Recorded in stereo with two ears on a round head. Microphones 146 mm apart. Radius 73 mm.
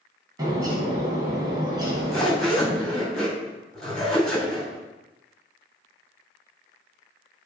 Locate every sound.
0.4 s a bird: 25° right (ahead or behind), 2 m
1.8 s a zipper: 5° left (ahead or behind), 3 m